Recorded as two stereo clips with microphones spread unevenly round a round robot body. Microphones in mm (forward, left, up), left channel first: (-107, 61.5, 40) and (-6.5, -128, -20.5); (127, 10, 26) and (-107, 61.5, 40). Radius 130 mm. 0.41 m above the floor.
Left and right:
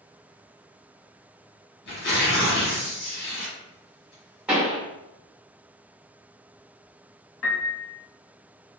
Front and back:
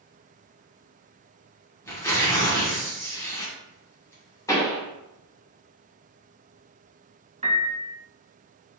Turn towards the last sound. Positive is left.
turn(degrees=105)